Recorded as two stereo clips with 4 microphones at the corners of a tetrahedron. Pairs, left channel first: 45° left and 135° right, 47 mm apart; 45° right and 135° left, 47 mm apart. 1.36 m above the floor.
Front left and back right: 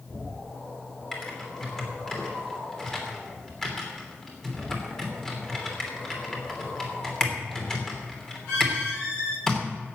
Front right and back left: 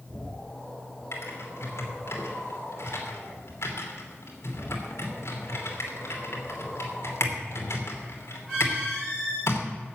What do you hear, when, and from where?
1.1 s typing on a keyboard: 35° right, 3 m